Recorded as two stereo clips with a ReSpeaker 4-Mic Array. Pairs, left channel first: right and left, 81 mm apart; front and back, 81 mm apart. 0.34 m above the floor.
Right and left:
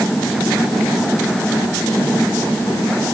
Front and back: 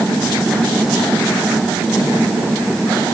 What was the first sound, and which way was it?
Only background noise.